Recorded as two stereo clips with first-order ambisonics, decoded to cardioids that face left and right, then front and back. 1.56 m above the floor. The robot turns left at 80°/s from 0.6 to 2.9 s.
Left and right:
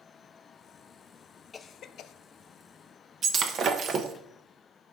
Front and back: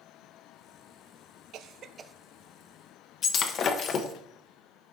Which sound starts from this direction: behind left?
A cough, at 1.5 s.